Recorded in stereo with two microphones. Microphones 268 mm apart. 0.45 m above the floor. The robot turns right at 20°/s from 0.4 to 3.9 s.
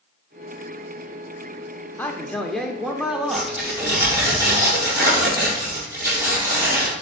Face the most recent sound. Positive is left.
turn(degrees=-10)  # may be behind; listen again after turning